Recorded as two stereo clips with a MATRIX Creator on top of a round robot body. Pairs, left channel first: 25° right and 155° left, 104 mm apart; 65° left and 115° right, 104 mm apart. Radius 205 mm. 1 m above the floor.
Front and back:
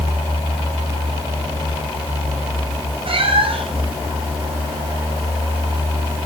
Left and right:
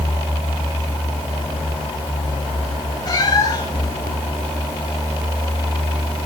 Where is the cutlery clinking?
I don't hear cutlery clinking.